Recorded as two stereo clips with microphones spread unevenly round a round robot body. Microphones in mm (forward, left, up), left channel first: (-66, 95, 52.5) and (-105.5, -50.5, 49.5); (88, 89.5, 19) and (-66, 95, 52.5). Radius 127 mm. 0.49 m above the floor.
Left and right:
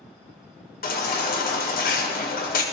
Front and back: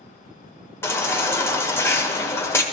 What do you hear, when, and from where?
0.8 s a baby crying: 65° left, 1.6 m